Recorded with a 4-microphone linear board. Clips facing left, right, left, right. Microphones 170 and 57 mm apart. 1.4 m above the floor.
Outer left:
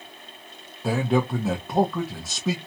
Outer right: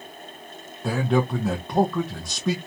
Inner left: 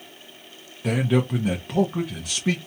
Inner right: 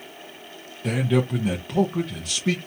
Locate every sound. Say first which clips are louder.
0.8 s a man speaking: even, even; 5° left (ahead or behind), 0.6 m